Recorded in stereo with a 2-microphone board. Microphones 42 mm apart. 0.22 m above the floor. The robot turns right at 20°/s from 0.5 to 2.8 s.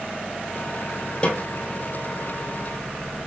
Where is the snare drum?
30° left (ahead or behind), 2 m; by 1.4 s 35° left (ahead or behind), 2 m.